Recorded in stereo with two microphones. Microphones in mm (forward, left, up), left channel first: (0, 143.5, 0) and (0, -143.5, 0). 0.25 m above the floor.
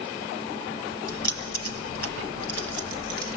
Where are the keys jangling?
60° left (ahead or behind), 2.5 m; by 3.4 s 40° left (ahead or behind), 3 m.